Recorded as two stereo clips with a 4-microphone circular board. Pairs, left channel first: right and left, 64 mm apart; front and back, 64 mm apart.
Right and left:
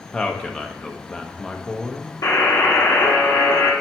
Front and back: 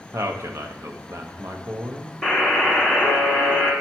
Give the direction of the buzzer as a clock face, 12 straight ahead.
3 o'clock.